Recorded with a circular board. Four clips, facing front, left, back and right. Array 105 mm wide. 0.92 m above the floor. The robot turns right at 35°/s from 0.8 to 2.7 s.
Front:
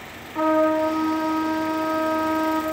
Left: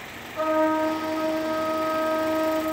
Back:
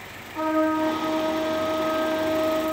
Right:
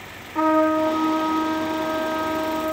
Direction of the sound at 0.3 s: 75° right.